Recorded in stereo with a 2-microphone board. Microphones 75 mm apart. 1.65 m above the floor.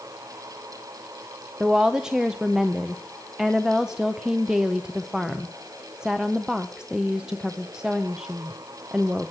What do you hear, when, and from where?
1.6 s a woman speaking: 10° right (ahead or behind), 0.6 m